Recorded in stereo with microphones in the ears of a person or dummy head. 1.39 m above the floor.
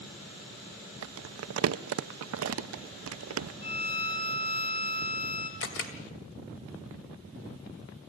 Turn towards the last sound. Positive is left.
turn(degrees=65)  # may be behind; listen again after turning